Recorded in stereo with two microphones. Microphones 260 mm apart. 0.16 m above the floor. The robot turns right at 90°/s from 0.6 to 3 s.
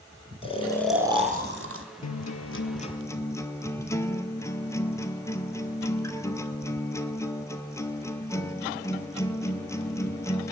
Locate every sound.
0.4 s snoring: 155° left, 1.2 m; by 1.8 s 95° right, 1.2 m
2.0 s a guitar: 80° left, 0.8 m; by 10.5 s 170° left, 0.8 m